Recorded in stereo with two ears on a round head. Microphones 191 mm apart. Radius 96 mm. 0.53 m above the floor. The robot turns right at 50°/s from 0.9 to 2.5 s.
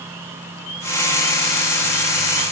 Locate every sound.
Only background noise.